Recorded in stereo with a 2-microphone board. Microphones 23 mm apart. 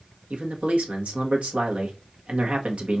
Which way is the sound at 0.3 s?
75° right (ahead or behind).